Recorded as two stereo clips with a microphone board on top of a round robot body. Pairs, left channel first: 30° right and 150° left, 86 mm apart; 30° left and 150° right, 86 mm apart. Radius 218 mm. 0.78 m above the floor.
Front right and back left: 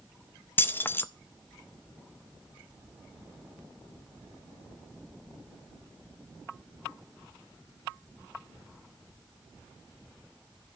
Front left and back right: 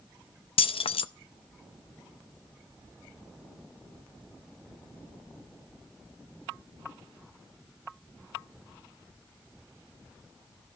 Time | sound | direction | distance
0.6 | keys jangling | 35° left | 0.6 m